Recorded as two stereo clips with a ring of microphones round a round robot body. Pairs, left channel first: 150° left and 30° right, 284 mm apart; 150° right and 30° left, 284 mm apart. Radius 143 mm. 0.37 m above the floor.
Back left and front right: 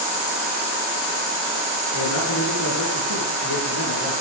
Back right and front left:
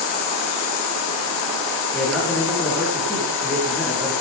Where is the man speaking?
120° left, 6.5 m.